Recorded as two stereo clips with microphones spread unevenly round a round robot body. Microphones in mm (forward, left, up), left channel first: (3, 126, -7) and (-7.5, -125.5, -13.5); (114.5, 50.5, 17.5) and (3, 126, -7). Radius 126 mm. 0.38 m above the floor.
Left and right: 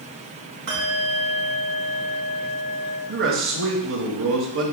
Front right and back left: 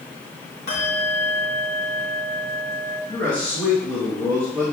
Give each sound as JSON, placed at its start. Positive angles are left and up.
{"t": 0.7, "sound": "a bell", "azimuth_deg": -50, "distance_m": 2.5}
{"t": 3.1, "sound": "a man speaking", "azimuth_deg": -125, "distance_m": 3.5}